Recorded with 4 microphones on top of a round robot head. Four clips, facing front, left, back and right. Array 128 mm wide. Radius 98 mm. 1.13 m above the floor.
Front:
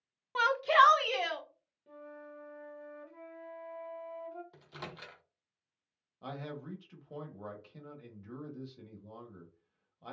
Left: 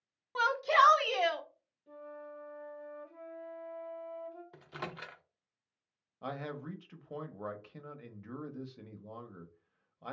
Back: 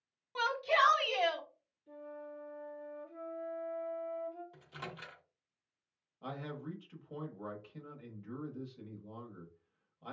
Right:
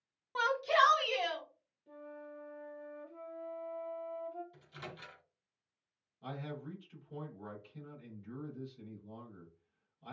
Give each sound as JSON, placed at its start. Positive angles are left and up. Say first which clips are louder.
{"t": 0.3, "sound": "a shout", "louder": "left 3 dB, front 6 dB", "azimuth_deg": 5, "distance_m": 0.7}
{"t": 1.9, "sound": "a flute", "louder": "left 2 dB, back 2 dB", "azimuth_deg": 5, "distance_m": 1.3}
{"t": 4.5, "sound": "a microwave", "louder": "left 6 dB, even", "azimuth_deg": 75, "distance_m": 0.6}
{"t": 6.2, "sound": "a man speaking", "louder": "left 3 dB, even", "azimuth_deg": 80, "distance_m": 0.8}